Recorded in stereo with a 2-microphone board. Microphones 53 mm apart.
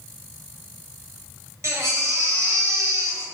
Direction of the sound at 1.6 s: 70° right (ahead or behind).